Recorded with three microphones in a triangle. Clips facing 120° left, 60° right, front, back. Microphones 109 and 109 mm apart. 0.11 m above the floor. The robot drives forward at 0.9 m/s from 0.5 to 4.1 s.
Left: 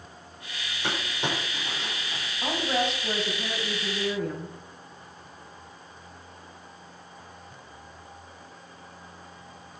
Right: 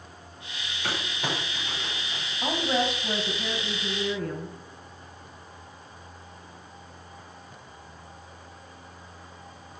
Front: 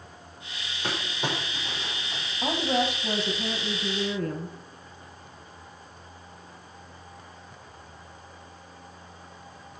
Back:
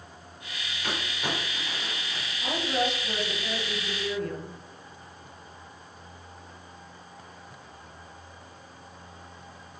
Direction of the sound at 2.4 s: 25° left.